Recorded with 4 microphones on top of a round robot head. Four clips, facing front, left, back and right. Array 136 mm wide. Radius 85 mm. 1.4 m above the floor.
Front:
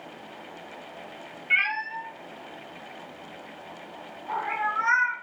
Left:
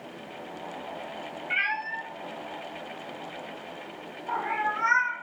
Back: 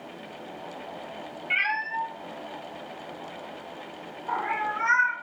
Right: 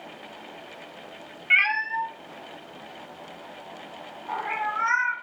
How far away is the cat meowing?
About 0.7 m.